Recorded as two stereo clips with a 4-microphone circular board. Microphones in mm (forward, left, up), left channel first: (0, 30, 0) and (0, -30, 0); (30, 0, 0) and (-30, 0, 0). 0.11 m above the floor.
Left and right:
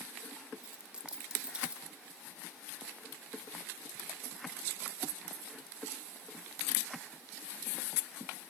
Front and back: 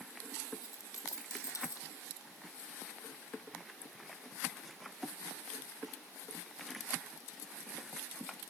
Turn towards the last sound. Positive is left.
turn(degrees=-20)